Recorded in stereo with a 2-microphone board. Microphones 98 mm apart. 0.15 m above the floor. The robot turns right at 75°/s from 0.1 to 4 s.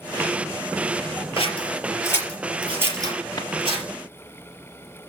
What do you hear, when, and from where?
1.4 s scissors: 65° left (ahead or behind), 4 m; by 3.8 s 65° right (ahead or behind), 4 m
3.4 s a drawer: 45° left (ahead or behind), 1.4 m; by 3.5 s 40° left (ahead or behind), 1.4 m